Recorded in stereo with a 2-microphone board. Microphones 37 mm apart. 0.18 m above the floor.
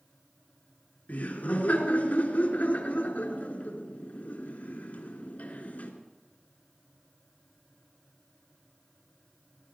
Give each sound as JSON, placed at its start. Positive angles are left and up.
{"t": 1.1, "sound": "laughter", "side_deg": 45, "distance_m": 2.5}